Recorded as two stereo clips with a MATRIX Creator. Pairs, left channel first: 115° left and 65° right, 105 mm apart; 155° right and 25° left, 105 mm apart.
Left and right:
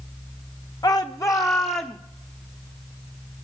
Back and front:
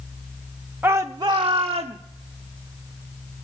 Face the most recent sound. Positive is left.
turn(degrees=45)